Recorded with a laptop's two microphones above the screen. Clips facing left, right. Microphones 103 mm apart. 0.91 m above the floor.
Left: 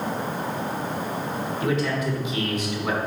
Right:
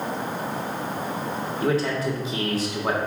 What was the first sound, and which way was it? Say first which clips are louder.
A man speaking: right 2 dB; 35° right (ahead or behind).